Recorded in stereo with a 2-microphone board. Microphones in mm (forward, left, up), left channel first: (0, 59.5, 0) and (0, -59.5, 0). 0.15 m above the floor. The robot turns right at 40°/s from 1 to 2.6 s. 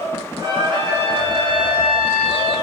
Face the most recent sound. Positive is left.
turn(degrees=-60)